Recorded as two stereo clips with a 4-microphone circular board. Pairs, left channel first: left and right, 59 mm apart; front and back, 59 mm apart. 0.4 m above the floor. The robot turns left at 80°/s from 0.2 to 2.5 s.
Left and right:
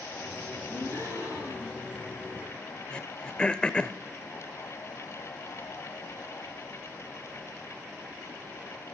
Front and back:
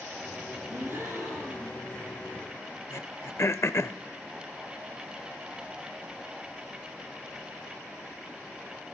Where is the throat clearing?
20° left, 0.6 m.